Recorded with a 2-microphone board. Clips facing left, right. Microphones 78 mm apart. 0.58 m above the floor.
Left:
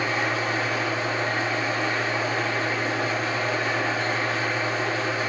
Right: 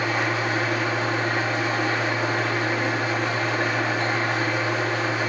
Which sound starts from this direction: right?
An engine running, at 0.0 s.